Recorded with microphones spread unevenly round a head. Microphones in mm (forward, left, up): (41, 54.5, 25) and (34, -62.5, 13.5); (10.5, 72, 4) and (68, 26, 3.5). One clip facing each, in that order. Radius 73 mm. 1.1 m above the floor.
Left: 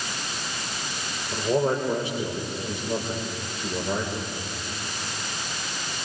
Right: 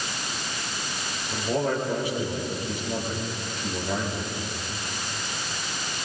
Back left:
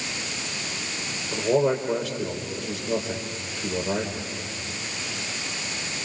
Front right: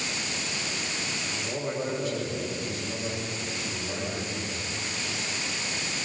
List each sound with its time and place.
1.3 s a man speaking: 155° left, 5.5 m